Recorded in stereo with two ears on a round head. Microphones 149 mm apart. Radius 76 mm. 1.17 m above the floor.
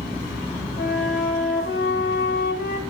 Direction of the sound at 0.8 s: 60° left (ahead or behind).